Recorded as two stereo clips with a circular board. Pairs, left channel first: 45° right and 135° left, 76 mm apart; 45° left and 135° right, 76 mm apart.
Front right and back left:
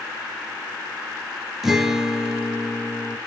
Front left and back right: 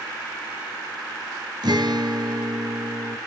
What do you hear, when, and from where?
1.6 s a guitar: 140° right, 2 m